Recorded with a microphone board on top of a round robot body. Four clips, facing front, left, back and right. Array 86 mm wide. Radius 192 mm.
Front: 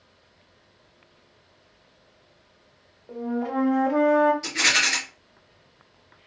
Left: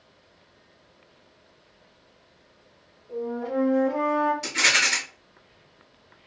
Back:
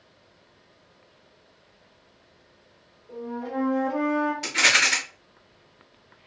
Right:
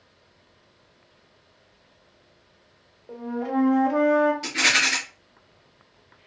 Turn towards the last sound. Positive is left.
turn(degrees=-170)